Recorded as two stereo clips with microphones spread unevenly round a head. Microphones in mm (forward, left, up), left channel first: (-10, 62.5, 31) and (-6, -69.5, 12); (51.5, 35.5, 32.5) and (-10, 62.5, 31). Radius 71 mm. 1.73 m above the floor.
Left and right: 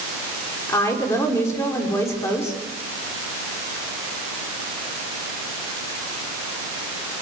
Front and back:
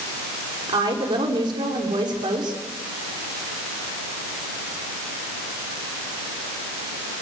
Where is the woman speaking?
160° left, 6 m.